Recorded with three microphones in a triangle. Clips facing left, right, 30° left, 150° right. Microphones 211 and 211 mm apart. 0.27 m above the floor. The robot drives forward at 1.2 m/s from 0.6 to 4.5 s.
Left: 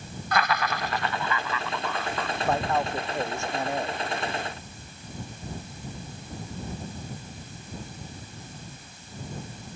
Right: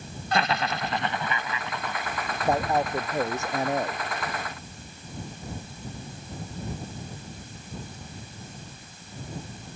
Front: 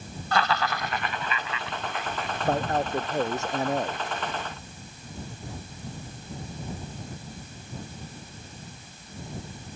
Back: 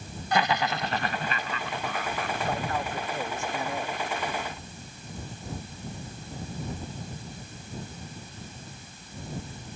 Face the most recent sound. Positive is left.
turn(degrees=-20)